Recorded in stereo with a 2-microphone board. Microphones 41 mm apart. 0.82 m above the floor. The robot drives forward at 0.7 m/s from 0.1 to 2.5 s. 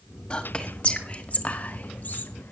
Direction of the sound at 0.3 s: 25° left (ahead or behind).